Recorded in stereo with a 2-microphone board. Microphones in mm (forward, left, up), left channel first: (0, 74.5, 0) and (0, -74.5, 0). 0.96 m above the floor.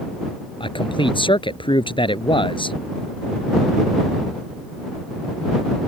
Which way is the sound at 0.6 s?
30° left (ahead or behind).